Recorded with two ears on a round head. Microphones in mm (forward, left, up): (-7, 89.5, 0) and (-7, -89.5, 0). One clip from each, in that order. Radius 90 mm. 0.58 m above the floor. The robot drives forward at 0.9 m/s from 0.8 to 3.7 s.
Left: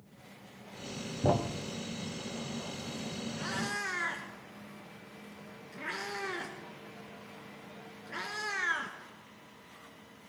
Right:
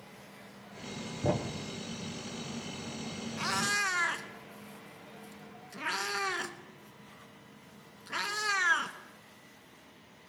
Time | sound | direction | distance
1.2 | a thud | 30° left (ahead or behind) | 0.7 m
3.4 | a cat meowing | 55° right (ahead or behind) | 0.8 m